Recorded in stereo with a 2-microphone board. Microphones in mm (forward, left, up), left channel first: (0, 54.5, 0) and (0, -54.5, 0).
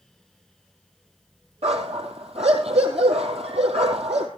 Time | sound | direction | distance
1.6 | a dog barking | 80° right | 3.5 m